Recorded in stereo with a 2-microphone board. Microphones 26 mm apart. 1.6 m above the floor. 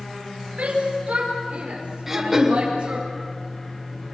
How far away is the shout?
About 4.5 m.